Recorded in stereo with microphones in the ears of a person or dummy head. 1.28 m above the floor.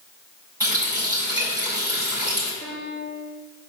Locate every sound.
0.6 s a running tap: 20° right (ahead or behind), 5 m
2.6 s a piano: 35° right (ahead or behind), 4.5 m